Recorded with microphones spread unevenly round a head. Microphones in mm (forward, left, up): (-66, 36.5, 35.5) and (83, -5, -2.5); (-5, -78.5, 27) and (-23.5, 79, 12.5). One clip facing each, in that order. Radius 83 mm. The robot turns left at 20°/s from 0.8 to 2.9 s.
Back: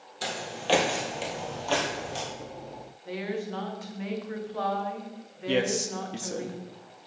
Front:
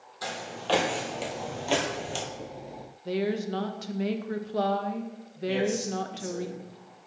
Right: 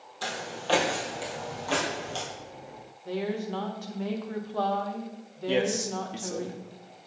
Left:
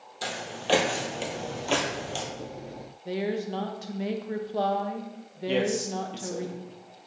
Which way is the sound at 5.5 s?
165° right.